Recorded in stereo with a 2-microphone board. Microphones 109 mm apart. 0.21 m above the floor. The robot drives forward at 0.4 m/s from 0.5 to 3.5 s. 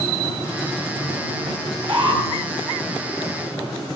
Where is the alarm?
50° right (ahead or behind), 3 m; by 2.2 s 55° right (ahead or behind), 3 m.